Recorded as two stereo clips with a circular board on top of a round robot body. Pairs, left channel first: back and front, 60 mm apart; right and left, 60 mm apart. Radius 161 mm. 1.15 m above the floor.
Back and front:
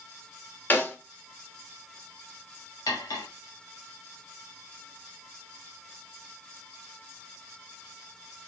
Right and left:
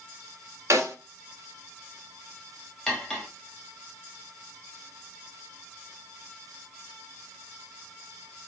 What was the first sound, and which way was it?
A snare drum, 120° left.